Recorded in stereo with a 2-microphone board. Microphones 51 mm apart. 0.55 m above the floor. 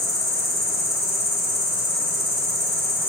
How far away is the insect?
About 3 m.